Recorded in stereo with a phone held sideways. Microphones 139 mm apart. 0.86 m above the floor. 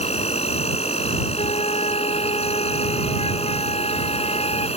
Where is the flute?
50° left (ahead or behind).